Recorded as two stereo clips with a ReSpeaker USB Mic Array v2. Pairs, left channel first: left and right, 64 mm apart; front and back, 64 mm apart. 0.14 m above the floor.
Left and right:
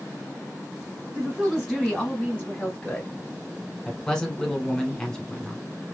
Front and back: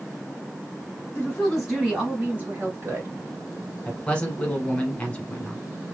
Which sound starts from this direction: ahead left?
A man speaking, at 3.9 s.